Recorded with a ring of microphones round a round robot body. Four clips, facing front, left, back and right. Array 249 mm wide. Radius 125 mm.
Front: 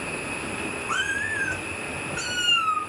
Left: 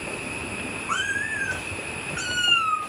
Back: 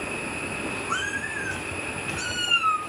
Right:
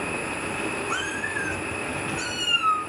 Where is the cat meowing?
65° left, 4.5 m; by 2.8 s 85° left, 3 m.